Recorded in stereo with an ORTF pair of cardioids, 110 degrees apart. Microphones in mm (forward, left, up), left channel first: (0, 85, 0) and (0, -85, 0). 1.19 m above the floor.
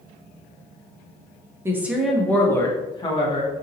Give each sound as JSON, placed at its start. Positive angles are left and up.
{"t": 1.6, "sound": "a woman speaking", "azimuth_deg": -15, "distance_m": 0.9}